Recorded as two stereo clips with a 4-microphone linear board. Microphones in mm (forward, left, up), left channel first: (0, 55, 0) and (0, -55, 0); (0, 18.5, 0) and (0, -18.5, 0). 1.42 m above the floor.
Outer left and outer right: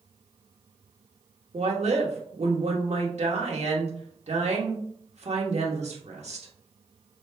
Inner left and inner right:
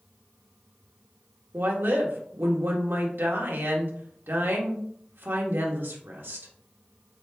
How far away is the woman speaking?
About 1.1 m.